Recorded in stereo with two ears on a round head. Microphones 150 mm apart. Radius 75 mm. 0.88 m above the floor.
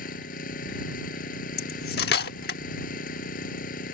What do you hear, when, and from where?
0.0 s an engine running: 55° left (ahead or behind)
1.6 s cutlery clinking: 65° left (ahead or behind)